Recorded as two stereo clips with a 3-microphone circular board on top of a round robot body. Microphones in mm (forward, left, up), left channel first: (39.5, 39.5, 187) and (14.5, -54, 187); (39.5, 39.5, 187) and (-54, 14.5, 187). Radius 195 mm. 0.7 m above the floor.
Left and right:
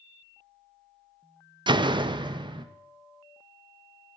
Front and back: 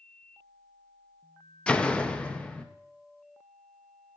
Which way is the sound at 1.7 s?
65° right.